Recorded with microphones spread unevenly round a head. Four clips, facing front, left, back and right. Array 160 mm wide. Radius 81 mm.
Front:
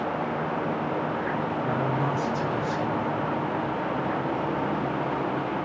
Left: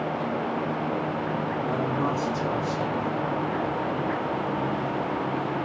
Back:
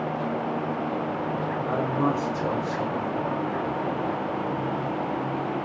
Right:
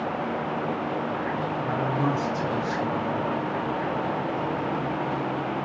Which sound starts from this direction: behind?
A man speaking, at 1.6 s.